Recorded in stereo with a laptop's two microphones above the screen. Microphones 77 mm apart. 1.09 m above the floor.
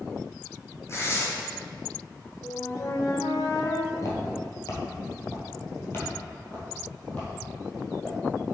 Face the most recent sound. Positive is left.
turn(degrees=15)  # may be behind; listen again after turning